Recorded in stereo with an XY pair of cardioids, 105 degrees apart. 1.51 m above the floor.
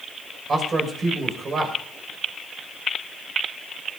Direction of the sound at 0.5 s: 40° right.